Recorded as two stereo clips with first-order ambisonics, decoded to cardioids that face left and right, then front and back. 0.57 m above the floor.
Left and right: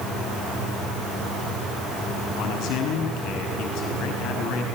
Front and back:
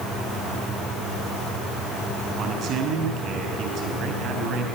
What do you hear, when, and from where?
2.4 s a man speaking: 130° left, 6.5 m